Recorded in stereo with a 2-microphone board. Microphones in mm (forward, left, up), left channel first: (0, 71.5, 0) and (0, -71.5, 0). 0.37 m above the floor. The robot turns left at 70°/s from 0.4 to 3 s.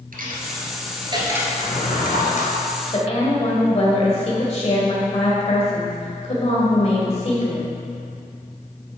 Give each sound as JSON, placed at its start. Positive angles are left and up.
{"t": 0.1, "sound": "a dropped coin", "side_deg": -85, "distance_m": 1.6}
{"t": 1.6, "sound": "a drawer", "azimuth_deg": 125, "distance_m": 2.5}
{"t": 2.9, "sound": "a woman speaking", "side_deg": 45, "distance_m": 1.8}